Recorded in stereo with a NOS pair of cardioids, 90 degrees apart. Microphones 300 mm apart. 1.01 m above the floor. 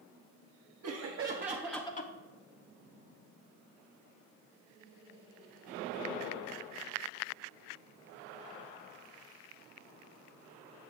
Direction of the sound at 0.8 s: 55° right.